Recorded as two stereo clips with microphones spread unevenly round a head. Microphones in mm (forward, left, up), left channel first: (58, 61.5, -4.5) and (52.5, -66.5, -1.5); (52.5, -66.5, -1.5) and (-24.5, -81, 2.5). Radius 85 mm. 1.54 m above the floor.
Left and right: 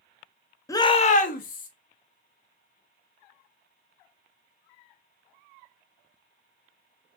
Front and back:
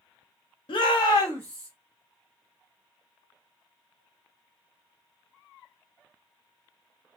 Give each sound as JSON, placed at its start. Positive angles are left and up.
{"t": 0.7, "sound": "a shout", "azimuth_deg": 20, "distance_m": 0.5}